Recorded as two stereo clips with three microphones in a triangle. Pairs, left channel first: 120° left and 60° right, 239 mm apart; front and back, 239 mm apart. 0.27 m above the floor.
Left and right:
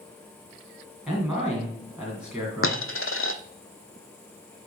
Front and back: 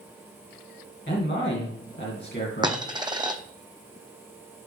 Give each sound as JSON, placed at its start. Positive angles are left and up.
{"t": 1.1, "sound": "a man speaking", "azimuth_deg": 25, "distance_m": 2.5}
{"t": 2.6, "sound": "a dropped coin", "azimuth_deg": 110, "distance_m": 0.7}